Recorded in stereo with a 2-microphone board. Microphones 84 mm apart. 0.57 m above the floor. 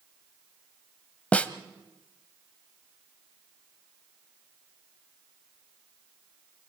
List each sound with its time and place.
1.3 s a snare drum: 15° left (ahead or behind), 1.2 m